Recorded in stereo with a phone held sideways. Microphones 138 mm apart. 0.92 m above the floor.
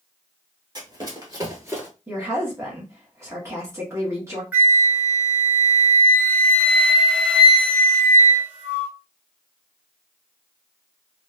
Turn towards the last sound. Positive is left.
turn(degrees=-15)  # may be behind; listen again after turning